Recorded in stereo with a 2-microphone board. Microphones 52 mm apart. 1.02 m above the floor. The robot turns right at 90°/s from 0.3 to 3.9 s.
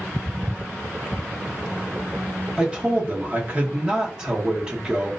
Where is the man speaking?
145° right, 0.9 m; by 5.1 s 25° right, 0.9 m.